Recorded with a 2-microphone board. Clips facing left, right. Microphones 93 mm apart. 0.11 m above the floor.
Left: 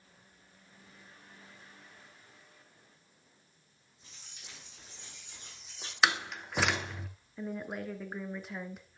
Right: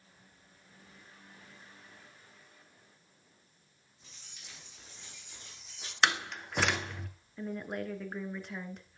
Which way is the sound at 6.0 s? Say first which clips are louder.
Even; 5° left (ahead or behind).